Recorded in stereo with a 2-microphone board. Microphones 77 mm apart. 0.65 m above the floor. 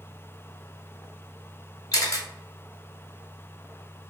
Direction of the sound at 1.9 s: 45° left (ahead or behind).